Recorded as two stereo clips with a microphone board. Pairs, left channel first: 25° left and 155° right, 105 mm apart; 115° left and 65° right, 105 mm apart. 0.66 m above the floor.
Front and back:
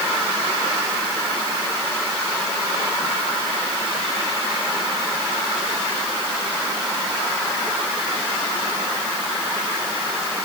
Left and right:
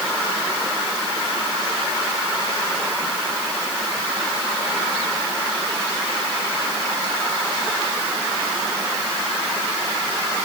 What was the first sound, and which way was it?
Only background noise.